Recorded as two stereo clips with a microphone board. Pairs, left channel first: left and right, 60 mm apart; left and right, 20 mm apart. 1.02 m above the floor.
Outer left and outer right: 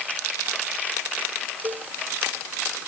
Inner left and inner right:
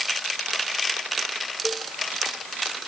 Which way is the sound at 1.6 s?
75° right (ahead or behind).